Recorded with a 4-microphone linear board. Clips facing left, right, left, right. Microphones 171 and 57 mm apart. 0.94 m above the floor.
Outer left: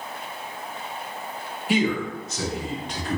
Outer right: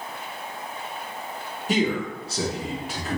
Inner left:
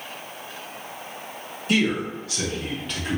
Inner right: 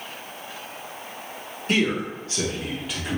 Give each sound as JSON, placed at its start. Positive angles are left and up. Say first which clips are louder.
{"t": 1.7, "sound": "a man speaking", "louder": "outer left 1 dB, inner left 1 dB", "side_deg": -40, "distance_m": 1.3}